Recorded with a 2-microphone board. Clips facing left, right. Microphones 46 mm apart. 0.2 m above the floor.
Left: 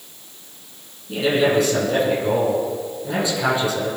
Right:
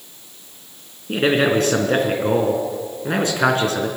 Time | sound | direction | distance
1.1 | a man speaking | 55° right (ahead or behind) | 2.5 m